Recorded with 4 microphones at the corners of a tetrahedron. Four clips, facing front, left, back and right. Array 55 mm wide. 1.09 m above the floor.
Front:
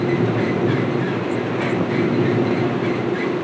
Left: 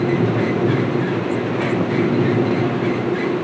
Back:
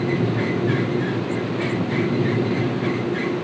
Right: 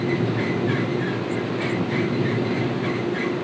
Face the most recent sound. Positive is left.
No sound to turn to.